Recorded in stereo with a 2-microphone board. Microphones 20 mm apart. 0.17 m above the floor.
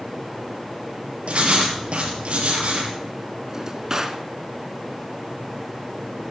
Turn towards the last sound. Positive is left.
turn(degrees=-25)  # may be behind; listen again after turning